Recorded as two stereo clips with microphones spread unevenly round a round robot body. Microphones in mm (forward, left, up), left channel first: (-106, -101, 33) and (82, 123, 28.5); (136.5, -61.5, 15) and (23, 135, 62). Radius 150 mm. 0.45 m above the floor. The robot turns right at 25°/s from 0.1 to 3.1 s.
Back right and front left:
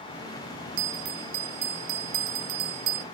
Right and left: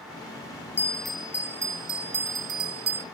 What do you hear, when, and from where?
0.8 s a bell: 25° left, 0.5 m; by 3.0 s 85° left, 0.5 m